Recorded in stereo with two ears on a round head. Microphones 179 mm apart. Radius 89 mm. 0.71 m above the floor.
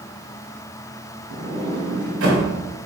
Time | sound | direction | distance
1.3 | a sliding door | 70° right (ahead or behind) | 2.5 m